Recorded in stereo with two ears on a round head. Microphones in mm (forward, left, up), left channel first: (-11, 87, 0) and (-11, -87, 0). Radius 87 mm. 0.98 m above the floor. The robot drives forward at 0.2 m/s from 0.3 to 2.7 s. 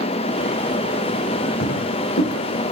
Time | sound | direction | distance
1.6 | footsteps | 70° left (ahead or behind) | 3.5 m